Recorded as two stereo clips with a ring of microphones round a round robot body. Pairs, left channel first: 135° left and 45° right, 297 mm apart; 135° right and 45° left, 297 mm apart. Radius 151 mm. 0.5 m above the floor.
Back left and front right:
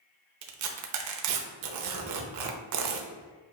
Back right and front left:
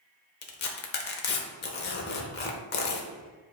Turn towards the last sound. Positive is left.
turn(degrees=-80)